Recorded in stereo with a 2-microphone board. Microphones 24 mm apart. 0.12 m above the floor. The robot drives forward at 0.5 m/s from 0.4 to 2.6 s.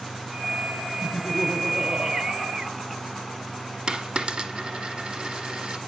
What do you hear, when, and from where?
1.0 s laughter: 10° left (ahead or behind), 1.6 m; by 3.5 s 5° left (ahead or behind), 2.5 m
3.9 s a dropped coin: 45° right (ahead or behind), 1.0 m